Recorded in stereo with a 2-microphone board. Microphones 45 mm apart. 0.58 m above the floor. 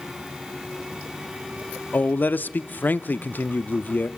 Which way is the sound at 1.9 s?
45° left (ahead or behind).